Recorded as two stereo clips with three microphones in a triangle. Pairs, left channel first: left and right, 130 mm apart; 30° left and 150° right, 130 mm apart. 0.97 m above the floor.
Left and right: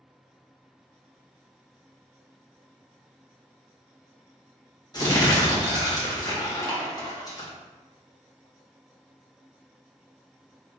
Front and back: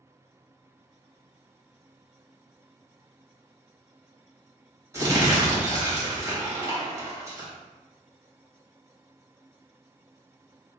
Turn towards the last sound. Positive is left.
turn(degrees=145)